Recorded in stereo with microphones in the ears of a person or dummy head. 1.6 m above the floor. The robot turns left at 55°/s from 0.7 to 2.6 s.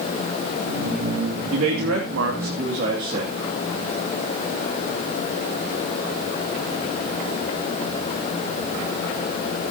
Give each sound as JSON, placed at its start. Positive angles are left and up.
{"t": 1.5, "sound": "a man speaking", "azimuth_deg": -70, "distance_m": 2.5}